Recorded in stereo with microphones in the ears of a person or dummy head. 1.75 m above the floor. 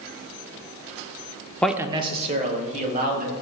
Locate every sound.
1.6 s a man speaking: 5° left (ahead or behind), 0.6 m; by 3.3 s 50° right (ahead or behind), 2.5 m